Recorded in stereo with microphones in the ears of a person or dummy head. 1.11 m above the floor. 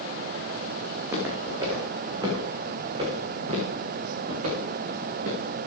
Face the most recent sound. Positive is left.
turn(degrees=-50)  # may be behind; listen again after turning